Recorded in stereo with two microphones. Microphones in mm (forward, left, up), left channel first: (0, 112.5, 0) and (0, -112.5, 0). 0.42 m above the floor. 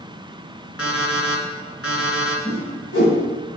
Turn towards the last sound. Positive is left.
turn(degrees=70)  # may be behind; listen again after turning